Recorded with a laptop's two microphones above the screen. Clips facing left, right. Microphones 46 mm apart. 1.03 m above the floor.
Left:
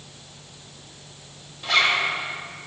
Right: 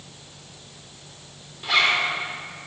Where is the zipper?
10° right (ahead or behind), 2.5 m.